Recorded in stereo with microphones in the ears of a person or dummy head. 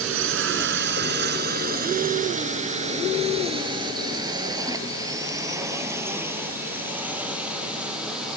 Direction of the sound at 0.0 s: 70° right (ahead or behind).